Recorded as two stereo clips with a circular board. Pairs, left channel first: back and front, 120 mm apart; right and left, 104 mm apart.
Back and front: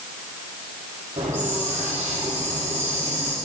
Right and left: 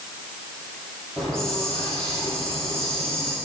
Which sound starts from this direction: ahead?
A hiss, at 1.2 s.